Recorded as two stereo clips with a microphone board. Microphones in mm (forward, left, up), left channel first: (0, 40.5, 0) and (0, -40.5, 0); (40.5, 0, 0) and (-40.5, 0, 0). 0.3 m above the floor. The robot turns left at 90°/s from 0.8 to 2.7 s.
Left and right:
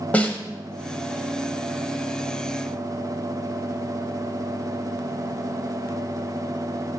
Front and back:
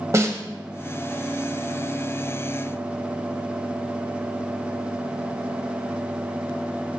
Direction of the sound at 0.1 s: 155° left.